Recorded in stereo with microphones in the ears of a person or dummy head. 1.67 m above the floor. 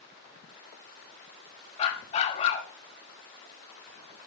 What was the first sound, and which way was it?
A dog barking, 35° left (ahead or behind).